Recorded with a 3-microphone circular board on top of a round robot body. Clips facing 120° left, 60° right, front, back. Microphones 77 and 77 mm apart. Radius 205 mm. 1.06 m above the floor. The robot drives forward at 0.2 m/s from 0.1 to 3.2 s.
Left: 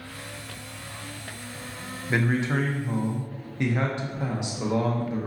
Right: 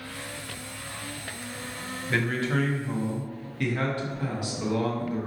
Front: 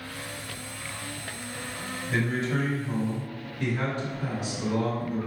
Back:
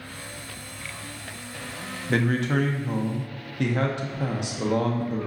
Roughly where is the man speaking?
Behind.